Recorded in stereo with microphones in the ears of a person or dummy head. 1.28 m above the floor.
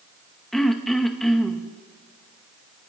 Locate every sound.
0.5 s throat clearing: 5° left (ahead or behind), 0.8 m